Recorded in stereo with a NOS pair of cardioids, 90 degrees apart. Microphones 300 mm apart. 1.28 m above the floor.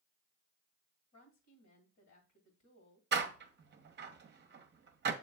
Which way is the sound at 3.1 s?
35° right.